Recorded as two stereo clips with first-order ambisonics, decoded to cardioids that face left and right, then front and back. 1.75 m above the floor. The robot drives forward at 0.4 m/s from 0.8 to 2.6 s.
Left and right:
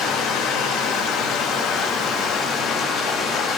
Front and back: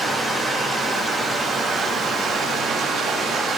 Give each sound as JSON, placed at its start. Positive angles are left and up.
{"t": 0.0, "sound": "running water", "azimuth_deg": 100, "distance_m": 1.7}